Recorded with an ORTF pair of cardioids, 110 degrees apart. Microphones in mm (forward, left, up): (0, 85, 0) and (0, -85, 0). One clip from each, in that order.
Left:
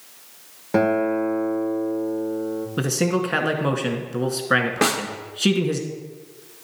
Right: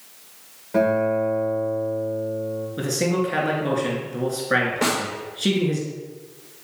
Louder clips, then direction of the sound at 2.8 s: Left 1 dB; 45° left.